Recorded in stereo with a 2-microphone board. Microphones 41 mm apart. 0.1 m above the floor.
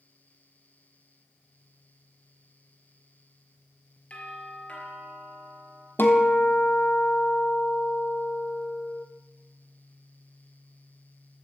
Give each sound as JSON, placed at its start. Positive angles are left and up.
{"t": 4.1, "sound": "a doorbell", "side_deg": 35, "distance_m": 3.5}
{"t": 6.0, "sound": "a guitar", "side_deg": 55, "distance_m": 1.5}